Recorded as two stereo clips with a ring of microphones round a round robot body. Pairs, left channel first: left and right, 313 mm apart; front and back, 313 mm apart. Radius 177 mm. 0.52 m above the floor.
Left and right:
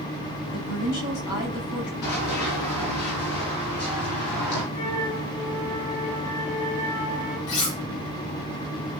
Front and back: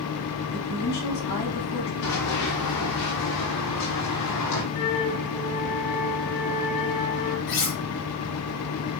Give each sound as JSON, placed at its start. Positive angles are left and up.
{"t": 0.5, "sound": "a woman speaking", "azimuth_deg": 55, "distance_m": 5.5}
{"t": 2.0, "sound": "running footsteps", "azimuth_deg": 45, "distance_m": 4.5}
{"t": 4.7, "sound": "a flute", "azimuth_deg": 15, "distance_m": 7.0}
{"t": 7.5, "sound": "cutlery clinking", "azimuth_deg": 55, "distance_m": 5.0}